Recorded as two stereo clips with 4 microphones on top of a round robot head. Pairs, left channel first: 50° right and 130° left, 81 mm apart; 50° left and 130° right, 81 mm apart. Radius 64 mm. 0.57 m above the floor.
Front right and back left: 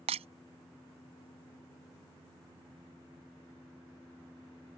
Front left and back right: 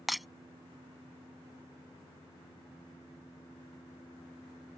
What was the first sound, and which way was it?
Breaking glass, 140° left.